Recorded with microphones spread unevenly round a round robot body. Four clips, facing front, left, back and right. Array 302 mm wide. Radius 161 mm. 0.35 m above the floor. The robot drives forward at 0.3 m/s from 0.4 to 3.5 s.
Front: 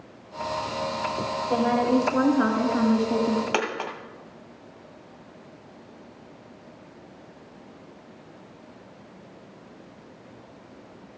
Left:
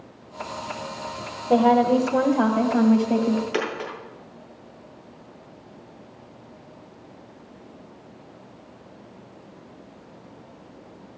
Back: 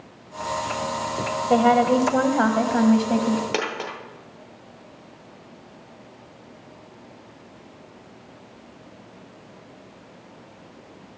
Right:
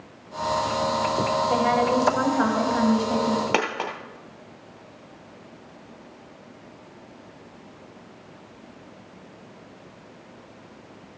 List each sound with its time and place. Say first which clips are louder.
1.5 s a woman speaking: left 7 dB, back 5 dB; 160° left, 1.5 m; by 3.4 s 165° left, 2 m
3.5 s a dropped coin: right 2 dB, even; 95° right, 1.9 m